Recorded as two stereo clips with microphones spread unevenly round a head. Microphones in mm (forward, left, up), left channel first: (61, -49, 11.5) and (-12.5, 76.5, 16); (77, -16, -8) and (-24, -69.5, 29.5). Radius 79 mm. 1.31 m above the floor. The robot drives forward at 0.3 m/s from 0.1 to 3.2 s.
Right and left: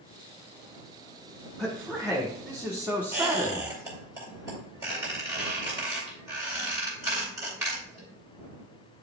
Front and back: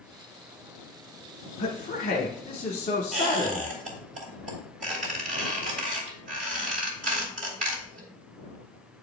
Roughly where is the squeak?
Behind.